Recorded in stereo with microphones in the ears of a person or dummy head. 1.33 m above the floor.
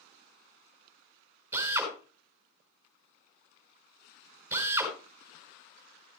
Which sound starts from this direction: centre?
A drill, at 1.5 s.